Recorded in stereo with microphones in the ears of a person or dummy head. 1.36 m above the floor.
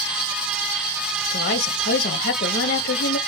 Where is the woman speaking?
50° left (ahead or behind), 0.7 m.